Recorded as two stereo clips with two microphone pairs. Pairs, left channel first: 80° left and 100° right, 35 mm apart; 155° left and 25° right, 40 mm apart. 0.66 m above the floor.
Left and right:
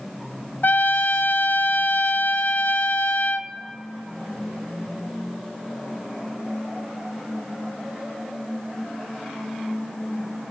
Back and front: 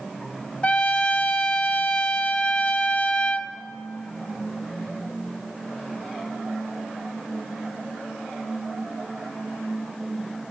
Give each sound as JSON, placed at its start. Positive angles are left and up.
{"t": 0.6, "sound": "a trumpet", "azimuth_deg": 95, "distance_m": 0.6}